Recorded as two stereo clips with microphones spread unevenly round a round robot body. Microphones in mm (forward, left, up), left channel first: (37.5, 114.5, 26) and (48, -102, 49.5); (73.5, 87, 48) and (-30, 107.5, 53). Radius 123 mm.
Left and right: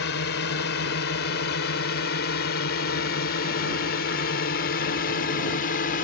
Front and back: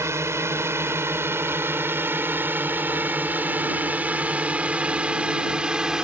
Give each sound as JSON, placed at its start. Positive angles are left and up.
{"t": 0.0, "sound": "a drone", "azimuth_deg": 110}